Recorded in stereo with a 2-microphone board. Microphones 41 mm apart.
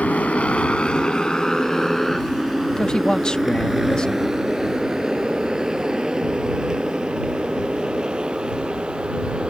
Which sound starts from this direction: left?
A motorcycle, at 0.0 s.